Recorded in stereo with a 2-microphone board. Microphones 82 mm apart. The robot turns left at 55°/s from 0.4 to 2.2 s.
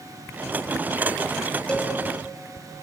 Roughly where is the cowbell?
Centre.